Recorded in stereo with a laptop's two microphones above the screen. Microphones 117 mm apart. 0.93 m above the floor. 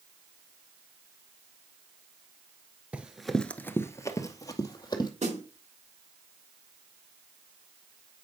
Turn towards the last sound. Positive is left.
turn(degrees=-80)